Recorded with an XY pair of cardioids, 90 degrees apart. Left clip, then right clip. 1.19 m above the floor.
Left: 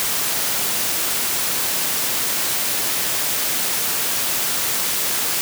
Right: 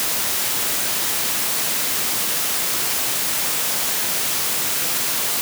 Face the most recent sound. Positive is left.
No sound to turn to.